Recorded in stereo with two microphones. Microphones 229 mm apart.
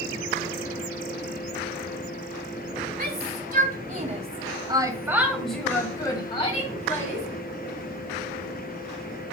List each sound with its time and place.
3.0 s a shout: 50° right (ahead or behind), 2.5 m; by 7.2 s 40° left (ahead or behind), 2 m